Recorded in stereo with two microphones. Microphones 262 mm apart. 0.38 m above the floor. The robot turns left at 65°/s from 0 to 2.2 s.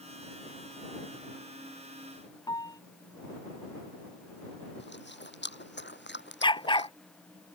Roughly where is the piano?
Centre.